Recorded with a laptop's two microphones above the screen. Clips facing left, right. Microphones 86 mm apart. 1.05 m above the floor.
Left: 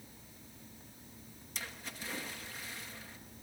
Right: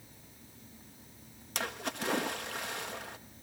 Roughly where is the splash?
Right.